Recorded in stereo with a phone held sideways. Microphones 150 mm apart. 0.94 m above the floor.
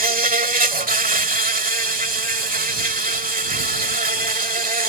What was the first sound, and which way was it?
An insect, 70° right (ahead or behind).